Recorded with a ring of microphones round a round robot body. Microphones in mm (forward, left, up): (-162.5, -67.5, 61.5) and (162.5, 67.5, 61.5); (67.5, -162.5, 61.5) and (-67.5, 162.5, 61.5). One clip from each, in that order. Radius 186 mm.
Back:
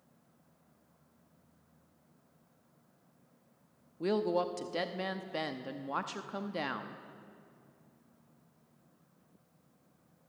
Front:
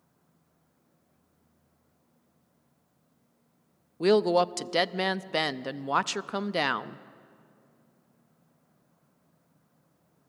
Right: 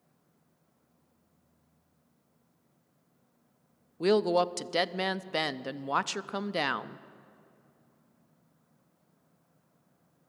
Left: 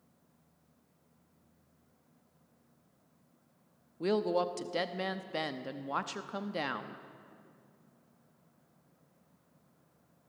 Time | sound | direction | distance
4.0 | a woman speaking | 10° right | 0.7 m